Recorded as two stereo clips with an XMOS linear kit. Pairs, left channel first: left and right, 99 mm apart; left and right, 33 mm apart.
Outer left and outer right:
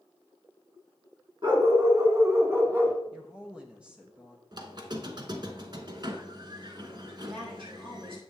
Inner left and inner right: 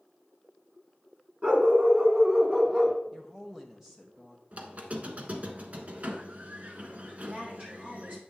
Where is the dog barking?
45° right (ahead or behind), 2 m; by 3.0 s 20° right (ahead or behind), 1.5 m.